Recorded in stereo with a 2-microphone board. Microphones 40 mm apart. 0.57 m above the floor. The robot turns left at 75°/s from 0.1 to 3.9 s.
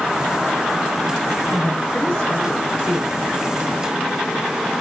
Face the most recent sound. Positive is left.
turn(degrees=-100)